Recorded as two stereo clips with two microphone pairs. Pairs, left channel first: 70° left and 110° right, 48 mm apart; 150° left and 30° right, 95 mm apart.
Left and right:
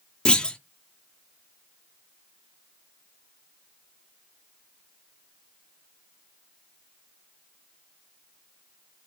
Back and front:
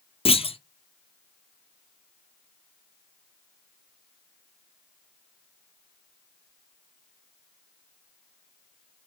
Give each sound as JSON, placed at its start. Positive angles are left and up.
{"t": 0.2, "sound": "a clunk", "azimuth_deg": 145, "distance_m": 0.6}